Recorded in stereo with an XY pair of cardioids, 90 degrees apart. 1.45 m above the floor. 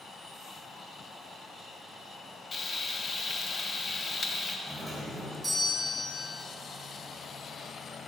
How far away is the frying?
About 0.7 m.